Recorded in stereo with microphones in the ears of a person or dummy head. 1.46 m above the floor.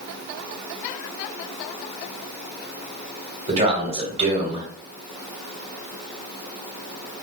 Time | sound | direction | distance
3.5 | a man speaking | 30° right (ahead or behind) | 1.3 m